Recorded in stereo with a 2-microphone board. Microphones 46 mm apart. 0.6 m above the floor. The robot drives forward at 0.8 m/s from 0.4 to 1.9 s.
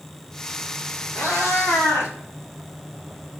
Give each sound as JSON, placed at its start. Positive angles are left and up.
{"t": 1.1, "sound": "a cat meowing", "side_deg": 75, "distance_m": 1.8}